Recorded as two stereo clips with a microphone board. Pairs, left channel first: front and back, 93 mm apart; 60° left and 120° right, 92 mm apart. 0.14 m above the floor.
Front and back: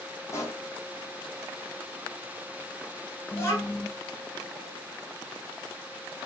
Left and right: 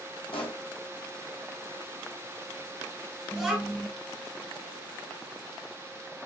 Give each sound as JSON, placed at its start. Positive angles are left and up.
{"t": 0.3, "sound": "a pop", "azimuth_deg": 55, "distance_m": 0.8}
{"t": 3.3, "sound": "a child speaking", "azimuth_deg": -35, "distance_m": 0.8}